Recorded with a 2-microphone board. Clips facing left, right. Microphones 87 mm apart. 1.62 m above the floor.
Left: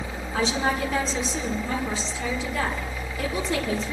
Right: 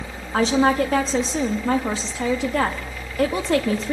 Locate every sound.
0.3 s a woman speaking: 55° right (ahead or behind), 2.5 m